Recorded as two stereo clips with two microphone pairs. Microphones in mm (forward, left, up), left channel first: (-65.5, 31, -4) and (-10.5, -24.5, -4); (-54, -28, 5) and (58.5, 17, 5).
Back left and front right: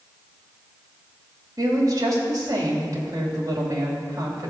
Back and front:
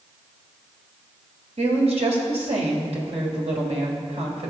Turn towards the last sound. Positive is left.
turn(degrees=-5)